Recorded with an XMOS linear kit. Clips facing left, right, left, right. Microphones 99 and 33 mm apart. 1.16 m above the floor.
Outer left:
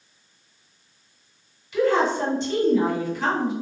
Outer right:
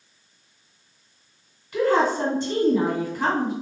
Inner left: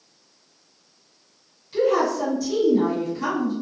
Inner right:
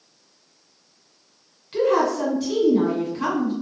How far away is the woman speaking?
About 1.3 m.